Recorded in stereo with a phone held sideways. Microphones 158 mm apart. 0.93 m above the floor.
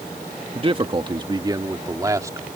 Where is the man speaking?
35° right (ahead or behind); by 2.5 s 20° right (ahead or behind).